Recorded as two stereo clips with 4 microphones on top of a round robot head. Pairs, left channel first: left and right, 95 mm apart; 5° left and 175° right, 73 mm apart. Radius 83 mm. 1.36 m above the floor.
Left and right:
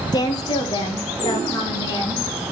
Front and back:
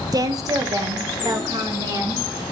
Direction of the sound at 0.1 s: 145° left.